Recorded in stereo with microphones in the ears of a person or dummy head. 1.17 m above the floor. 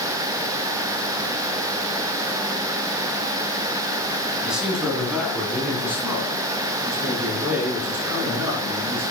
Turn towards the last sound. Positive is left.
turn(degrees=-15)  # may be behind; listen again after turning